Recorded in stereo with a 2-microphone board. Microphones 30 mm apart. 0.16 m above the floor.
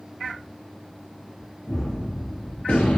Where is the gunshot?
50° left (ahead or behind), 4.5 m.